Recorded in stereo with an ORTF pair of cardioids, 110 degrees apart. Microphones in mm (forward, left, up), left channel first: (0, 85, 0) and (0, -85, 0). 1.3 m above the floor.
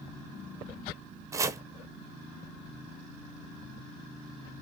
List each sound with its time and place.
1.3 s chopping: 20° right, 0.7 m